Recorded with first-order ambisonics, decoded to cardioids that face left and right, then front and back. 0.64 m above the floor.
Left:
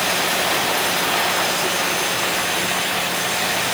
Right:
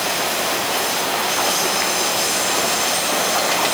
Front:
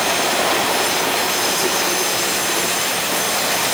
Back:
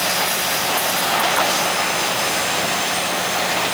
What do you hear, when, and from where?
Only background noise.